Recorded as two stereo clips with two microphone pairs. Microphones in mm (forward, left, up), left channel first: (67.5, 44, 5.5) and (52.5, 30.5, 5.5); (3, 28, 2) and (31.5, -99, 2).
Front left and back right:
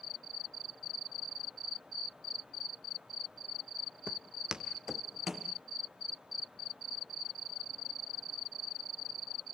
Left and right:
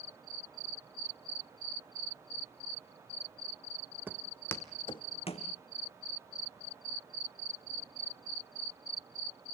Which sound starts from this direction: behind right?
Footsteps, at 4.1 s.